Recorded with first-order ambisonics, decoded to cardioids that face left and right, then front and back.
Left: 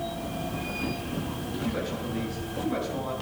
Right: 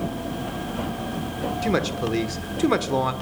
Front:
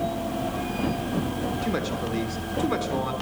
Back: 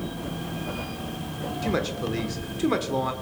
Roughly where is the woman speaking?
Right.